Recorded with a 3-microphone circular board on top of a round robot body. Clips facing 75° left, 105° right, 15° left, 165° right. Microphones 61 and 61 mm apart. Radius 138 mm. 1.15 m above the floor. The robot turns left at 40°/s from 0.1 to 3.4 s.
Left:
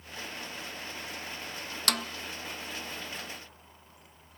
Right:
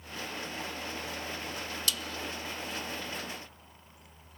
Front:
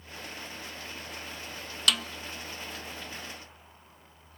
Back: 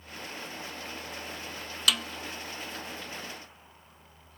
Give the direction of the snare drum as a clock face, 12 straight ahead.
8 o'clock.